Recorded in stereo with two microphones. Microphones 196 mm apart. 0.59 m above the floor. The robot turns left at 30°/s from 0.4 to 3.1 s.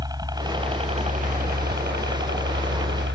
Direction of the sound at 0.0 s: 20° right.